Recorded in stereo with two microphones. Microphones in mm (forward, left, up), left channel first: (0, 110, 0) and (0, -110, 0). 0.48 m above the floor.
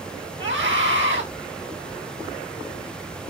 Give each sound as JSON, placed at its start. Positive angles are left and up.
{"t": 0.4, "sound": "a scream", "side_deg": -60, "distance_m": 4.0}